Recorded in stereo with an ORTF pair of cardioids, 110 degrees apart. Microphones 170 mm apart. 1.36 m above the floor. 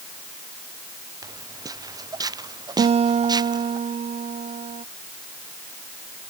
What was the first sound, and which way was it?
Footsteps, 20° right.